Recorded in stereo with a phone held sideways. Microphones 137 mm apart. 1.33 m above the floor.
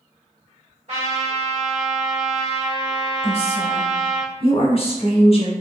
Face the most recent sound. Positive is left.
turn(degrees=45)  # may be behind; listen again after turning